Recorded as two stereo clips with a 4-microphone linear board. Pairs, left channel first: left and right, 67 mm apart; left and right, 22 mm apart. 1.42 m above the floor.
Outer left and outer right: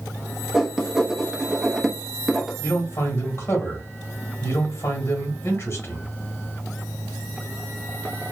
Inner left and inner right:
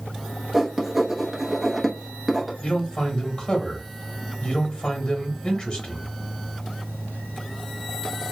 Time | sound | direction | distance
0.5 | writing | 5° right (ahead or behind) | 0.8 m
2.6 | a man speaking | 40° left (ahead or behind) | 1.4 m